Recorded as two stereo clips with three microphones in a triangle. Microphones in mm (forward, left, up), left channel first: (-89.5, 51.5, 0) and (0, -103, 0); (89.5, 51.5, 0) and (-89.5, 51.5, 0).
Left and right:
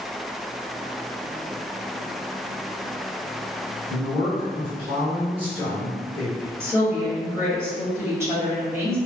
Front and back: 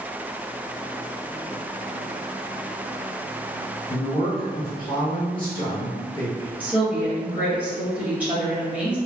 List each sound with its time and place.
3.9 s a woman speaking: 35° right, 1.7 m
6.6 s a woman speaking: 115° right, 1.2 m